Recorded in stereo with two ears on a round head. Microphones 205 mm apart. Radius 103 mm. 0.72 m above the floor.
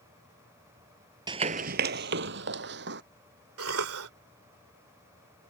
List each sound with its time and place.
1.3 s running footsteps: 20° right (ahead or behind); by 3.0 s 50° right (ahead or behind)
3.6 s a cough: 70° right (ahead or behind)